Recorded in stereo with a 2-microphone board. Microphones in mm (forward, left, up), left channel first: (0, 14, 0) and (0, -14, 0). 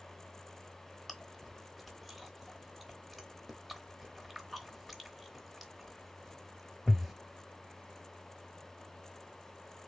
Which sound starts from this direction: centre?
Chewing, at 1.1 s.